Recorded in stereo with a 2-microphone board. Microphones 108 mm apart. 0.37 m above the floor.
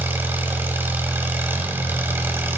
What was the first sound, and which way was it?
An engine running, 20° right (ahead or behind).